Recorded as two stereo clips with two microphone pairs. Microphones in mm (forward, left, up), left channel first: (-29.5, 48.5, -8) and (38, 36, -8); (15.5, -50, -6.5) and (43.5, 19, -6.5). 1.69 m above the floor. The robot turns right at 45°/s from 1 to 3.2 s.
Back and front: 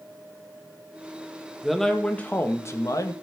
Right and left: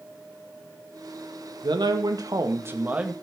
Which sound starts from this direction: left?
A man speaking, at 1.6 s.